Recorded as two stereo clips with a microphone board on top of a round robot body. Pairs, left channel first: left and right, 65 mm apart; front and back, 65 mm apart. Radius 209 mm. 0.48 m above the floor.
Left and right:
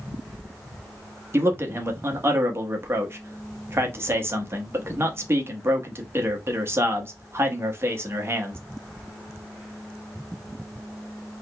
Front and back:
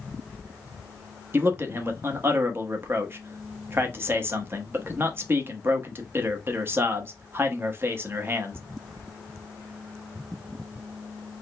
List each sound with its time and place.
1.3 s a man speaking: 135° right, 1.3 m